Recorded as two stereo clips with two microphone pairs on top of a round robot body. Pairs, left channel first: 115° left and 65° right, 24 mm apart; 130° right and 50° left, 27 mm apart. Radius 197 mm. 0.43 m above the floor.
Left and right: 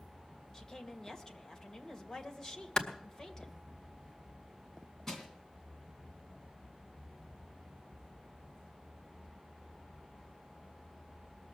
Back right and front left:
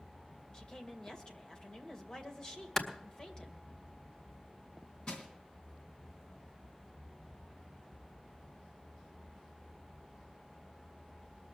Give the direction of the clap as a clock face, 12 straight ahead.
7 o'clock.